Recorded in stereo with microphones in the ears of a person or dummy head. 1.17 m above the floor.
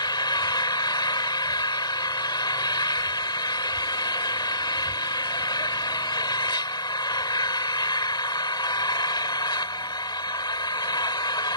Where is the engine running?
20° left (ahead or behind).